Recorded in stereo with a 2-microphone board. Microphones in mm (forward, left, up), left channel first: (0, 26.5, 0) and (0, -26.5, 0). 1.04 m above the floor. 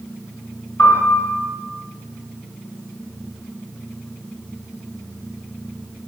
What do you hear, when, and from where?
0.8 s a piano: 60° left (ahead or behind), 1.7 m